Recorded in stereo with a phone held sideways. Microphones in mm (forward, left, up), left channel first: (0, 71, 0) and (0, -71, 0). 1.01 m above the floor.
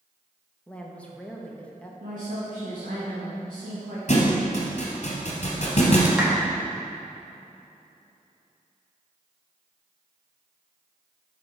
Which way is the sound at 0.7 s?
10° left (ahead or behind).